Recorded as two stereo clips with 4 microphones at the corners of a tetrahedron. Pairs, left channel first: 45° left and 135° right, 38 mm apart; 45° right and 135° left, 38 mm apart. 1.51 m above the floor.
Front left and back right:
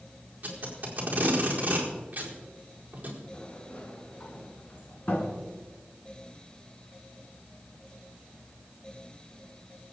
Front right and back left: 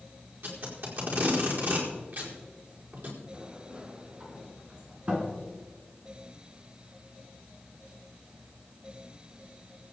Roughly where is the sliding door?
Left.